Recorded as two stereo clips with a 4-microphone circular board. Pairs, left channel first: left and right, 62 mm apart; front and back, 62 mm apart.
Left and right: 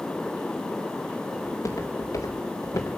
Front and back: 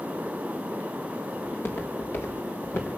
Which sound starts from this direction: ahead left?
Footsteps, at 1.4 s.